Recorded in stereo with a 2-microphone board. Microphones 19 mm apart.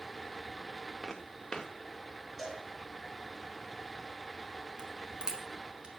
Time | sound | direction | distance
1.0 | footsteps | 30° left (ahead or behind) | 1.3 m
2.4 | a cowbell | 5° right (ahead or behind) | 2 m
4.8 | a crack | 40° right (ahead or behind) | 2 m